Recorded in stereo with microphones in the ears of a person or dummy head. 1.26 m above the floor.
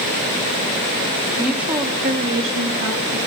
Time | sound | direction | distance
1.4 | a woman speaking | 5° left (ahead or behind) | 1.6 m